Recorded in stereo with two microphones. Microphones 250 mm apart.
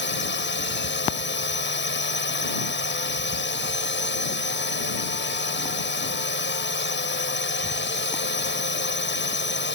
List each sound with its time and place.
0.0 s a drone: 45° left (ahead or behind)